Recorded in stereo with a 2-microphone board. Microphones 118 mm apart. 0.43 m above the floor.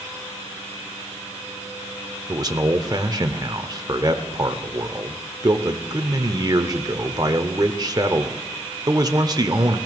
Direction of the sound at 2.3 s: 35° right (ahead or behind).